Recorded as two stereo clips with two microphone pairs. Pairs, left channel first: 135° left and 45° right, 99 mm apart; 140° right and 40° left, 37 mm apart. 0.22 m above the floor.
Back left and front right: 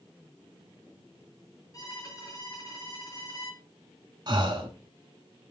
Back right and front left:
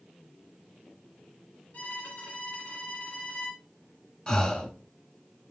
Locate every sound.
1.7 s a violin: 175° right, 3 m
4.3 s breathing: 75° right, 1.5 m